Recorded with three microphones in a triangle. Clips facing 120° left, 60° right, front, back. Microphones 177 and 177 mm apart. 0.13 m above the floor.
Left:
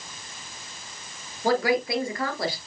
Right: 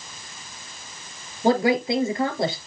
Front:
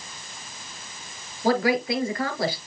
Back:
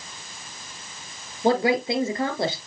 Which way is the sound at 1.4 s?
120° right.